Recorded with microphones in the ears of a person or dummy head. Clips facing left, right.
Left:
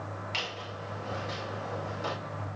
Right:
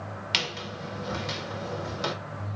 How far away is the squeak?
About 0.6 m.